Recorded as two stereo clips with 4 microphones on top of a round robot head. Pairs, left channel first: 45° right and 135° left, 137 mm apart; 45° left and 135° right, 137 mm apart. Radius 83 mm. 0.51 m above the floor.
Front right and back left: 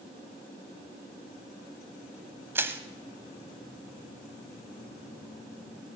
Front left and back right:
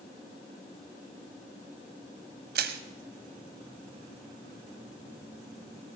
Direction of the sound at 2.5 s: 150° right.